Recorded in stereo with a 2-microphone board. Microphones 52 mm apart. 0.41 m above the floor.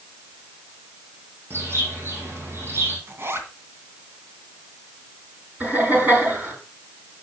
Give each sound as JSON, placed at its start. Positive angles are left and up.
{"t": 1.5, "sound": "a bird", "side_deg": -50, "distance_m": 3.5}
{"t": 3.1, "sound": "a zipper", "side_deg": -50, "distance_m": 2.0}
{"t": 5.6, "sound": "laughter", "side_deg": -35, "distance_m": 7.0}